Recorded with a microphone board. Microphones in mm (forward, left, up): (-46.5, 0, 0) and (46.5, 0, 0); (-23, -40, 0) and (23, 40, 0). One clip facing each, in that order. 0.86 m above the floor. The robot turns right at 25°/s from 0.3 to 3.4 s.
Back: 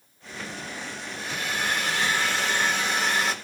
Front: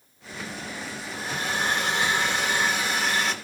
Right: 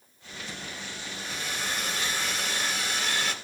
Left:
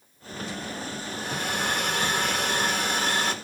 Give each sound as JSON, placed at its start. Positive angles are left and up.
{"t": 1.1, "sound": "a hair dryer", "azimuth_deg": 40, "distance_m": 1.4}